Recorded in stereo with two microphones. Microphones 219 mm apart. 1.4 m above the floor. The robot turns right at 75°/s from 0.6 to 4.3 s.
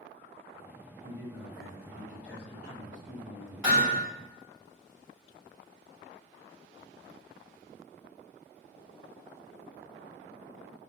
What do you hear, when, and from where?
1.0 s a man speaking: 25° left, 1.8 m; by 4.0 s 110° right, 1.8 m
3.6 s hammering: 15° right (ahead or behind), 1.8 m; by 4.0 s 40° right (ahead or behind), 1.8 m